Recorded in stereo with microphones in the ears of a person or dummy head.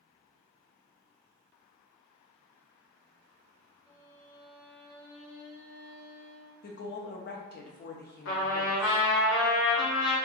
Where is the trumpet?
65° left (ahead or behind), 1.0 m.